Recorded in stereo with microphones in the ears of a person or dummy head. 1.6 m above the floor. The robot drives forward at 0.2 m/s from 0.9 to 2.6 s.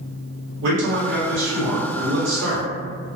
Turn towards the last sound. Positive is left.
turn(degrees=-60)  # may be behind; listen again after turning